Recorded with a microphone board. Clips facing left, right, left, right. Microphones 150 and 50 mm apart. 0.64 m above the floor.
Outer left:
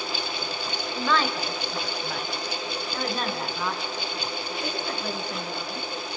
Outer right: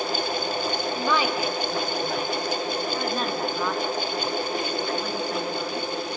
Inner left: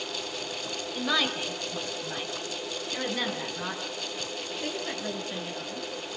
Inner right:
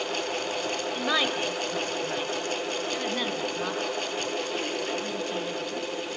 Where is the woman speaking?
15° right (ahead or behind), 2.5 m; by 5.8 s centre (ahead or behind), 9 m.